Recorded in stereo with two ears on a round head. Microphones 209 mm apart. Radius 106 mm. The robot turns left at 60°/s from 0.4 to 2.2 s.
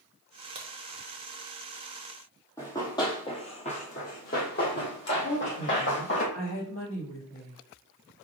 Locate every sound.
0.6 s a crack: 25° right (ahead or behind), 0.9 m
2.6 s running footsteps: 10° left (ahead or behind), 1.6 m; by 6.2 s 50° left (ahead or behind), 2 m
5.2 s a woman speaking: 60° left (ahead or behind), 1.6 m